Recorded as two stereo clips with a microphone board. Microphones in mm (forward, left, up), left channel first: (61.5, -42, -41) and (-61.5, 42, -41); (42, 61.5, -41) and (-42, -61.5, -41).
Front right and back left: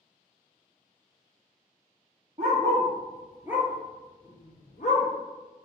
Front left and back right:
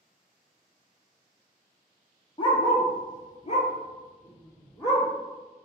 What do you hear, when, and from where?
2.4 s a dog barking: 115° left, 0.9 m; by 5.1 s 10° right, 0.8 m